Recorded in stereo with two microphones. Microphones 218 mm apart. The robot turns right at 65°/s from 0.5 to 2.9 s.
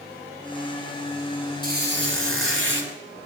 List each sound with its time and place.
1.6 s a squeak: 135° right, 3.5 m; by 2.9 s 55° right, 3.5 m